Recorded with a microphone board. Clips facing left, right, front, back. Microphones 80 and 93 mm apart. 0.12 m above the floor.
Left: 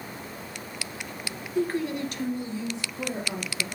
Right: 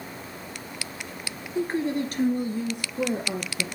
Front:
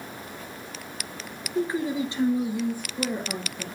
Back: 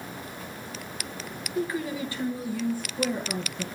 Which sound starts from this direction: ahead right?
A woman speaking, at 1.6 s.